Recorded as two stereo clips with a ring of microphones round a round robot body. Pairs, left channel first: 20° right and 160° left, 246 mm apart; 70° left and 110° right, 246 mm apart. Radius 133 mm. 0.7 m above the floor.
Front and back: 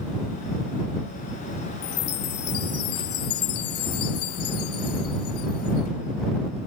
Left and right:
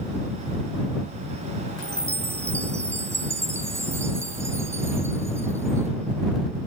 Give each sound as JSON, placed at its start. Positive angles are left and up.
{"t": 1.8, "sound": "a chime", "azimuth_deg": -35}